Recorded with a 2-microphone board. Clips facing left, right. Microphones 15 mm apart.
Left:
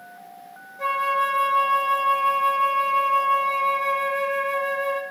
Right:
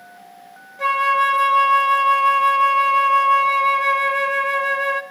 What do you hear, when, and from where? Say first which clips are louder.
0.8 s a flute: right 5 dB; 35° right (ahead or behind), 0.5 m